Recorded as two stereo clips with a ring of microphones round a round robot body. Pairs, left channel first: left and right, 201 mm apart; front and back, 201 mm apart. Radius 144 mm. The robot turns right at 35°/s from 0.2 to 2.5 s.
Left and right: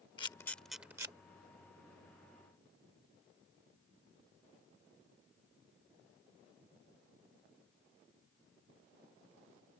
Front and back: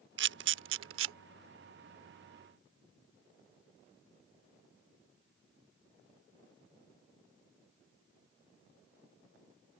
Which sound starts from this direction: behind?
A camera shutter, at 0.2 s.